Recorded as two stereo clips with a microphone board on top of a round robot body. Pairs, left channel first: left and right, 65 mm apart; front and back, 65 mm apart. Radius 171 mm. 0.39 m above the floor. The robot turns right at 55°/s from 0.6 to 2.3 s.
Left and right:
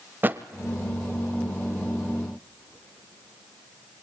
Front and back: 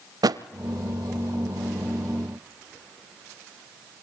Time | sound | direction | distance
0.2 | a thud | 155° right | 0.8 m